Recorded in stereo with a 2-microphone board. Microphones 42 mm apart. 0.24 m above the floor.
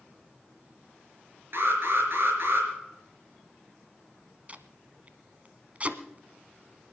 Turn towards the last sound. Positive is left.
turn(degrees=-35)  # may be behind; listen again after turning